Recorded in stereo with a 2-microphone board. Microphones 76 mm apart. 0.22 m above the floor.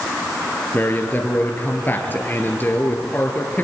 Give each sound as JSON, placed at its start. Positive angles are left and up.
{"t": 0.7, "sound": "a man speaking", "side_deg": 25, "distance_m": 3.5}